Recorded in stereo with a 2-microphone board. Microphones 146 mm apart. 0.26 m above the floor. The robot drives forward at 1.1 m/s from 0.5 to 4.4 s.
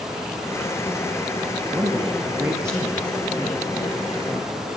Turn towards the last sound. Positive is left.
turn(degrees=-15)  # may be behind; listen again after turning